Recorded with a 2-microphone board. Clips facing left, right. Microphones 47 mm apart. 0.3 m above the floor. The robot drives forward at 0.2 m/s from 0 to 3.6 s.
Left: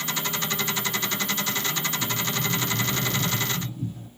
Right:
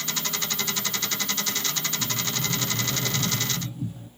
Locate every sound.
2.0 s a sliding door: 20° right (ahead or behind), 0.9 m; by 4.1 s 15° right (ahead or behind), 1.1 m